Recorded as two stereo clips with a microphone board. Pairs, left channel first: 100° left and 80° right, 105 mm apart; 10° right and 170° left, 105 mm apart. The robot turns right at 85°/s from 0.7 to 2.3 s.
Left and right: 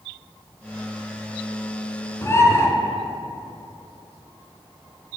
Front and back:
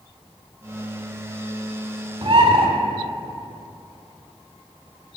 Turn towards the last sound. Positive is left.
turn(degrees=160)